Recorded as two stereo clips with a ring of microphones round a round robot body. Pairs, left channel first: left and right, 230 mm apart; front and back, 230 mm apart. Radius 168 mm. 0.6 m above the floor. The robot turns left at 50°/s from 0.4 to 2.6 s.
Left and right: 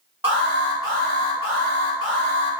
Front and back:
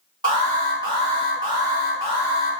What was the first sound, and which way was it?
An alarm, 160° right.